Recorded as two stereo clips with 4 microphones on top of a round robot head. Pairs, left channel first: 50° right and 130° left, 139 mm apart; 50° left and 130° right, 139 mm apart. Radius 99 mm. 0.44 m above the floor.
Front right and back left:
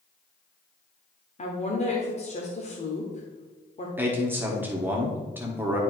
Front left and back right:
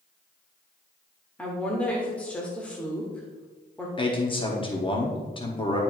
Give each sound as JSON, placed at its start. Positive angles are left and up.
{"t": 1.4, "sound": "a woman speaking", "azimuth_deg": -30, "distance_m": 1.3}
{"t": 4.0, "sound": "a man speaking", "azimuth_deg": 60, "distance_m": 1.4}